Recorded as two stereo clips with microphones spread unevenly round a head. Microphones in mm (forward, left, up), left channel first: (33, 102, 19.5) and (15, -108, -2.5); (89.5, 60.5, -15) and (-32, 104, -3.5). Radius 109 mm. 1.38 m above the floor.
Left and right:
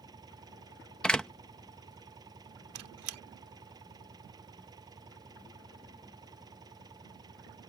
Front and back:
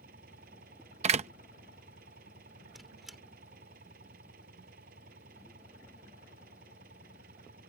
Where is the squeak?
115° right.